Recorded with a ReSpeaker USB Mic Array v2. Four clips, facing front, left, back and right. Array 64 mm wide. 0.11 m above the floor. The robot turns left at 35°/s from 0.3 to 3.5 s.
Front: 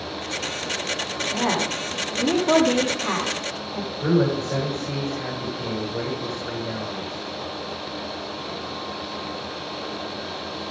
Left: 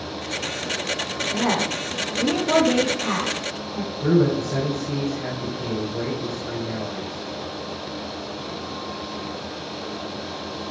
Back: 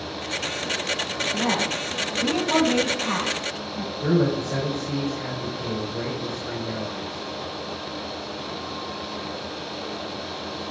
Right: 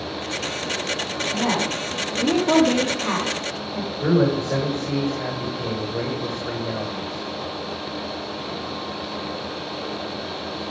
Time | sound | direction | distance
1.3 | a woman speaking | 10° left | 7 m
4.0 | a man speaking | 75° right | 8 m